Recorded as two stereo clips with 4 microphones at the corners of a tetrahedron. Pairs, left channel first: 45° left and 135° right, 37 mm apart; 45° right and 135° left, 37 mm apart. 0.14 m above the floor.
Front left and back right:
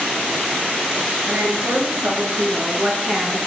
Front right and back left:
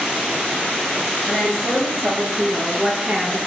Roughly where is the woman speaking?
Behind right.